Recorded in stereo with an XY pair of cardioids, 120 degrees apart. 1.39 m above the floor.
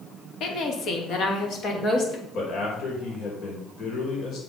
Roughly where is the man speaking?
Ahead left.